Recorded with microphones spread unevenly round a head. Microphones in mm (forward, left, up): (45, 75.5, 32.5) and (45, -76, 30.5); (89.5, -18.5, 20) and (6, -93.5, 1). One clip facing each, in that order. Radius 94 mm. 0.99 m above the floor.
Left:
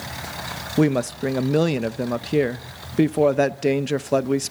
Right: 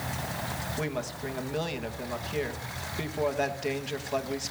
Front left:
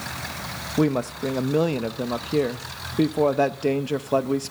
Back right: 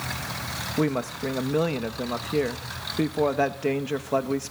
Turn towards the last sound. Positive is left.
turn(degrees=120)